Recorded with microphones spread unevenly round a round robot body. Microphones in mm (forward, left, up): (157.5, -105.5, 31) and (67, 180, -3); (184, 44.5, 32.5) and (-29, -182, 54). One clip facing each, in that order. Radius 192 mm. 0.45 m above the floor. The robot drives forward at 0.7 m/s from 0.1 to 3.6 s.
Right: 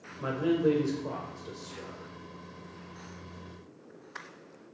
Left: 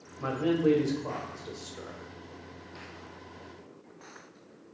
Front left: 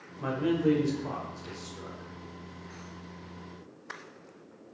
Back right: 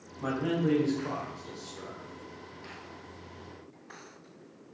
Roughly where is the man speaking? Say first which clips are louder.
Even, front left 3 dB; ahead.